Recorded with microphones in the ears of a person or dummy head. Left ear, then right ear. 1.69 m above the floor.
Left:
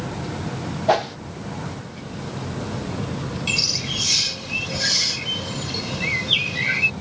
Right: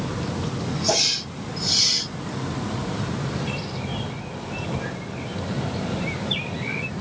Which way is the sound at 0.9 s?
25° left (ahead or behind).